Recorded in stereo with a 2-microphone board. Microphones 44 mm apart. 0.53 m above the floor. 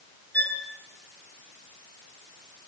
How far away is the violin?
About 8.5 m.